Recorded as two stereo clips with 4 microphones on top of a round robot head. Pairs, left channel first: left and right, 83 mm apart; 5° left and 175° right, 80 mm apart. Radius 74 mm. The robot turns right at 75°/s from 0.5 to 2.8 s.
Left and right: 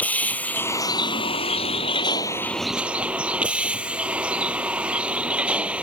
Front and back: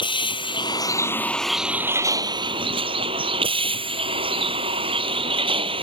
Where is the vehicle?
20° left; by 5.8 s 170° right.